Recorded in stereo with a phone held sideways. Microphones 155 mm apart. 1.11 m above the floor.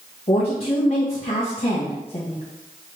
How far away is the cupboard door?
No cupboard door in this recording.